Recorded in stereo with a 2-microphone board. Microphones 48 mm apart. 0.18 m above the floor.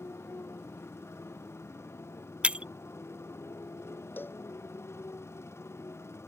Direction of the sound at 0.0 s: 70° left (ahead or behind).